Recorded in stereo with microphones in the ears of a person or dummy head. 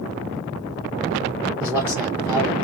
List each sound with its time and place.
1.6 s a man speaking: 10° right (ahead or behind), 0.5 m